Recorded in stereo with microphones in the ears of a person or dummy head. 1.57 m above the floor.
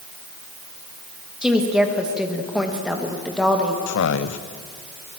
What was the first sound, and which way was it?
A woman speaking, 5° right (ahead or behind).